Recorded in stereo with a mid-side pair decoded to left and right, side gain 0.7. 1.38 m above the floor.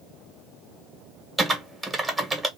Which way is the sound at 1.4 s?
5° right.